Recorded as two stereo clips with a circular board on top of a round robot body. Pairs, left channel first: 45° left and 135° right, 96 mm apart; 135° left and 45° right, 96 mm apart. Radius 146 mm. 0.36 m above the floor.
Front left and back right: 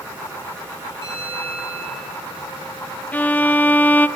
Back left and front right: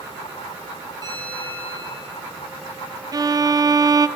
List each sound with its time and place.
1.0 s a bell: 100° right, 8 m
3.1 s a violin: 20° right, 0.8 m